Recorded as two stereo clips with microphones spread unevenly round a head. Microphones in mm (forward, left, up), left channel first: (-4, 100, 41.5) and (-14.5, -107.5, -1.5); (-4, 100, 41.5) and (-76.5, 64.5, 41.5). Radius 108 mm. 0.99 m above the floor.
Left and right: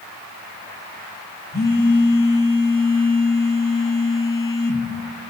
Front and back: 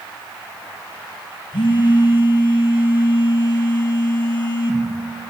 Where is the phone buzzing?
35° left, 1.9 m.